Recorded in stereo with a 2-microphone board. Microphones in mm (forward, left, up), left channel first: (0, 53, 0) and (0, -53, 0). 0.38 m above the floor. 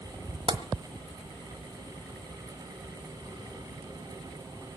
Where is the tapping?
45° right (ahead or behind), 1.4 m.